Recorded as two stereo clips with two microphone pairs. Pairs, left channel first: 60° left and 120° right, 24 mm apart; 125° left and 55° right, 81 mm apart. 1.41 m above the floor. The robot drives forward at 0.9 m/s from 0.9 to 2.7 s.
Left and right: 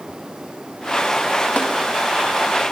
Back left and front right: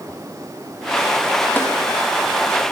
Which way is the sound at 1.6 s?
60° left.